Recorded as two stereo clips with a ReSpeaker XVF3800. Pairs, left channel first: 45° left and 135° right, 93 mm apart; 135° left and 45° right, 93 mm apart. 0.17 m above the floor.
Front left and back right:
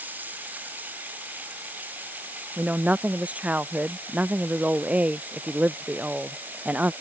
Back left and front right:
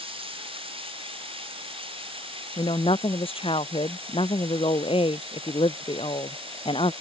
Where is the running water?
65° right.